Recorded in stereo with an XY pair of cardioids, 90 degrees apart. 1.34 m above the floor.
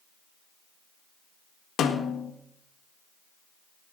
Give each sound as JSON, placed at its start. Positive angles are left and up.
{"t": 1.8, "sound": "a snare drum", "azimuth_deg": 70, "distance_m": 1.6}